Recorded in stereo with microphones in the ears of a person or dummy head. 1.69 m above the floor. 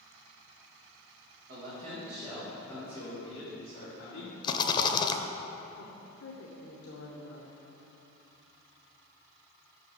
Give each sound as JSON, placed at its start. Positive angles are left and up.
{"t": 1.5, "sound": "a man speaking", "side_deg": -50, "distance_m": 1.9}
{"t": 4.4, "sound": "a rattle", "side_deg": 30, "distance_m": 0.5}
{"t": 5.8, "sound": "a woman speaking", "side_deg": 75, "distance_m": 1.1}